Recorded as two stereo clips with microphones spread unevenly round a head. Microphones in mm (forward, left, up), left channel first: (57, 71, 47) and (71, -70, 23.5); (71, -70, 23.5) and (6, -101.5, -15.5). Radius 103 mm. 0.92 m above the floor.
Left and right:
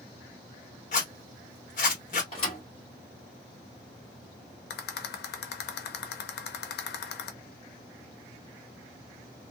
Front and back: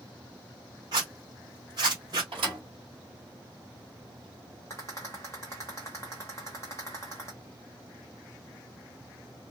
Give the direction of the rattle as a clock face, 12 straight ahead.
8 o'clock.